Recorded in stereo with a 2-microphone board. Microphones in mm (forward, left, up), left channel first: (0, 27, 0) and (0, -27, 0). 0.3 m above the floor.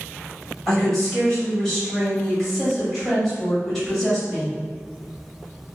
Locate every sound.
0.7 s a woman speaking: 10° left (ahead or behind), 1.4 m